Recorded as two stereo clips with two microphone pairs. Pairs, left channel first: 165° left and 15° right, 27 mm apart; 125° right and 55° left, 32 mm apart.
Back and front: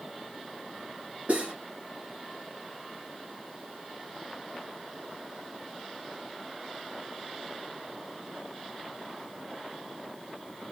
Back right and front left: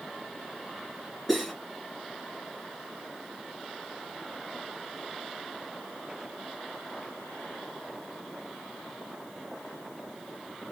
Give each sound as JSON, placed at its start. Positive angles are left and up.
{"t": 1.3, "sound": "cutlery clinking", "azimuth_deg": -35, "distance_m": 3.0}